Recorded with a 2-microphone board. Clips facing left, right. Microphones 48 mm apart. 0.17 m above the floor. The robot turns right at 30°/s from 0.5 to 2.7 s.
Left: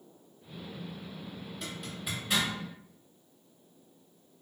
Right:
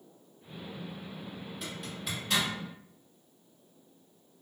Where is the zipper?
5° right (ahead or behind), 1.5 m; by 2.5 s 20° left (ahead or behind), 1.5 m.